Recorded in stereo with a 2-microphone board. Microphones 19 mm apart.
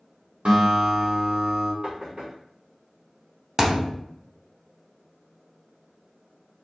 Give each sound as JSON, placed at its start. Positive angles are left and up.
{"t": 0.5, "sound": "a guitar", "side_deg": -50, "distance_m": 1.1}
{"t": 1.8, "sound": "knocking", "side_deg": -35, "distance_m": 1.6}
{"t": 3.6, "sound": "a thud", "side_deg": -30, "distance_m": 0.6}